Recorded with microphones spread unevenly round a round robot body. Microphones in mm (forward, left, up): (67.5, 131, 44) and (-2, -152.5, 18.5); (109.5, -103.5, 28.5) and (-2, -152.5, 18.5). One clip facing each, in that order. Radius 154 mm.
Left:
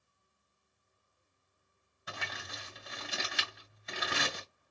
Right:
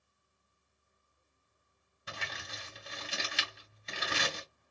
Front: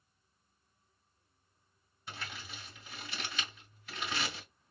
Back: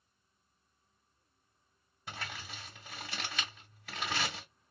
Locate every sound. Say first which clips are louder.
2.1 s crumpling: left 1 dB, back 2 dB; 165° right, 2.5 m